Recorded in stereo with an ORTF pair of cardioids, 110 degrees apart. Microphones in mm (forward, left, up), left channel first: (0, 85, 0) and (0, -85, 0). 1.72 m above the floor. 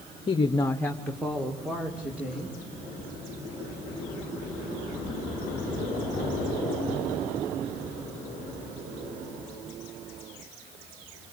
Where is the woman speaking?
35° left, 0.9 m; by 2.5 s 10° right, 3.5 m.